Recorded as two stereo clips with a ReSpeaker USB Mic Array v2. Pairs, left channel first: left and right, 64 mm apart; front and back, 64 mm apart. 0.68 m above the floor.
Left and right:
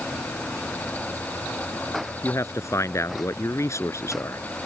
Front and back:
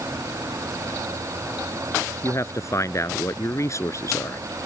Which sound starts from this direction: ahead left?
A man speaking, at 2.2 s.